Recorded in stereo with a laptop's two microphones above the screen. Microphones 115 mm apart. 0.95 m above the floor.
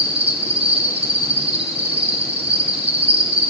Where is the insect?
55° right (ahead or behind), 1.1 m.